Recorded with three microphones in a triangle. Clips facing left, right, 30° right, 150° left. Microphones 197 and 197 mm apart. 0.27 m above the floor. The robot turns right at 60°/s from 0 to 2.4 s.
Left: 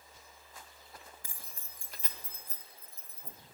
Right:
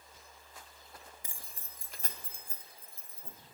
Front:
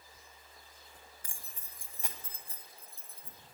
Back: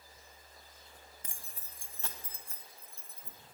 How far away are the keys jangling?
About 0.9 m.